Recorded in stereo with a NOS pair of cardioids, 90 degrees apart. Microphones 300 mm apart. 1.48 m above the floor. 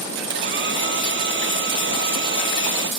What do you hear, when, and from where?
0.3 s a hair dryer: 40° right